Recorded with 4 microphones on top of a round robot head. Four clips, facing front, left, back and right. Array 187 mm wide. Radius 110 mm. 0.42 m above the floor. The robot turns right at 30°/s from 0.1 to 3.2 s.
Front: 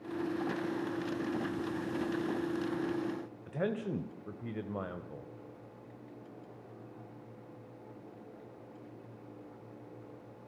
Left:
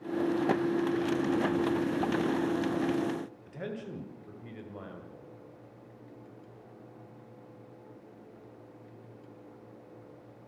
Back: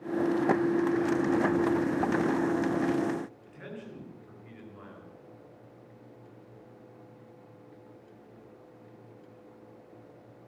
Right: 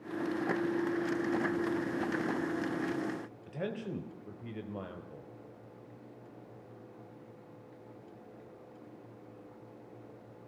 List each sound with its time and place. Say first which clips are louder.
3.5 s a man speaking: right 1 dB, front 9 dB; 15° right, 2 m